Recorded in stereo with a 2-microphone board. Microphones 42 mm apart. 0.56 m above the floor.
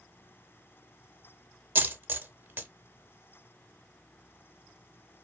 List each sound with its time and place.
1.8 s a dropped coin: 60° right (ahead or behind), 0.5 m